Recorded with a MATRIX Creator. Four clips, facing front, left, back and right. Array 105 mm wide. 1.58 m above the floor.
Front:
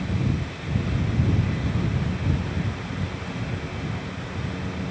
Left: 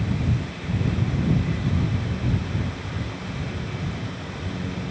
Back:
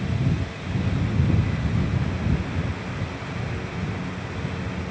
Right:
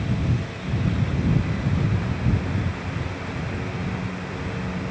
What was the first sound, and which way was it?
Only background noise.